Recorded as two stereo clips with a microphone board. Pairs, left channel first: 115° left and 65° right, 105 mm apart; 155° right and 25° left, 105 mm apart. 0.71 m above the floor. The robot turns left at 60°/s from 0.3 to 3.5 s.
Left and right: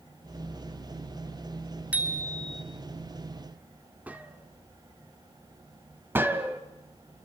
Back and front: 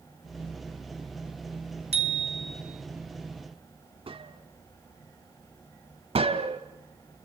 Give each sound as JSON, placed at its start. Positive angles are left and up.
{"t": 1.9, "sound": "a bicycle bell", "azimuth_deg": 10, "distance_m": 3.5}
{"t": 4.1, "sound": "a gunshot", "azimuth_deg": 5, "distance_m": 2.0}
{"t": 6.2, "sound": "a gunshot", "azimuth_deg": 0, "distance_m": 2.0}